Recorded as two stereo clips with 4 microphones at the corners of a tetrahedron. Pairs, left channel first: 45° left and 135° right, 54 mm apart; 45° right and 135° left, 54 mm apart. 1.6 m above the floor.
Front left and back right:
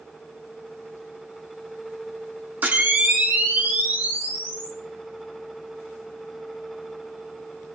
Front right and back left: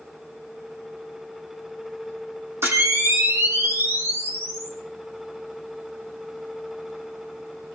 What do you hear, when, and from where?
2.6 s a camera shutter: 170° left, 2.5 m